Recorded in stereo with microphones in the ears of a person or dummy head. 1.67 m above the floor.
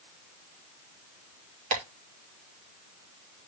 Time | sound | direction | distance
1.7 | tapping | 40° right (ahead or behind) | 3 m